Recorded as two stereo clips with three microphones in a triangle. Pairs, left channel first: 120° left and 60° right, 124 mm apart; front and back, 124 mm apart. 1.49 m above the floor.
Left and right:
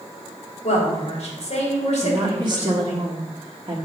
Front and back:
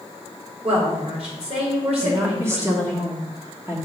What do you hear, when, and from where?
0.6 s a woman speaking: 145° left, 3 m
2.0 s a woman speaking: 110° right, 1.3 m